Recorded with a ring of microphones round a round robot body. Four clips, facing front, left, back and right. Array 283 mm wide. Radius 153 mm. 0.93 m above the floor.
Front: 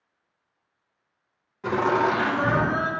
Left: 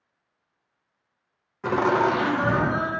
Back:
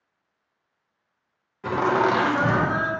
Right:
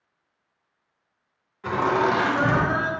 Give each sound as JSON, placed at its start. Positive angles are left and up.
{"t": 1.6, "sound": "laughter", "azimuth_deg": 95, "distance_m": 0.6}